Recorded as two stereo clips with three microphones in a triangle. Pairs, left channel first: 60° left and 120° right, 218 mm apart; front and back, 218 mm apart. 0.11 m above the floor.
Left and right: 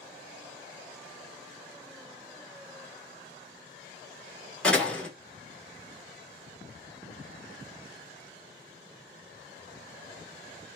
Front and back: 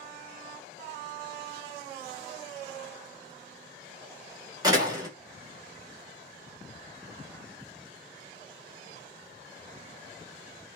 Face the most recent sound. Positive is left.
turn(degrees=140)